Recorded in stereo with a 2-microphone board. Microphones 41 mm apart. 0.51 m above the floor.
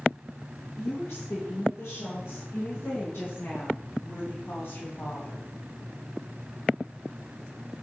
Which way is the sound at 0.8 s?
80° left.